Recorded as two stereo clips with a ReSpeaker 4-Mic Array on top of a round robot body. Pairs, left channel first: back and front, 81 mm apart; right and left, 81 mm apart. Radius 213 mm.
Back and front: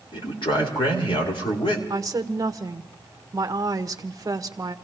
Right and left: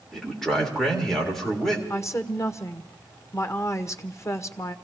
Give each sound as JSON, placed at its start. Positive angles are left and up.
{"t": 0.1, "sound": "a man speaking", "azimuth_deg": -175, "distance_m": 3.5}
{"t": 1.9, "sound": "a woman speaking", "azimuth_deg": -40, "distance_m": 1.3}